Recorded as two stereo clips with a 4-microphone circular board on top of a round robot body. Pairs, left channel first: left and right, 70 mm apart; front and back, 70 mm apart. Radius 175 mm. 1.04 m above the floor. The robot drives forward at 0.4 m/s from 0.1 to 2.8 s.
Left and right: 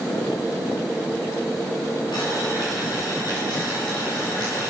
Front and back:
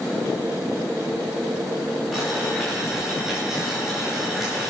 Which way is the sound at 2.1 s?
90° left.